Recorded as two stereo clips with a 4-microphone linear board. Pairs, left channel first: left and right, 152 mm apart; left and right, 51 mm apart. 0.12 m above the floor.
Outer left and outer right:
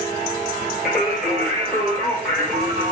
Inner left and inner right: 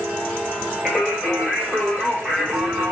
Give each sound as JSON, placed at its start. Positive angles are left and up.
{"t": 0.8, "sound": "singing", "side_deg": 0, "distance_m": 1.1}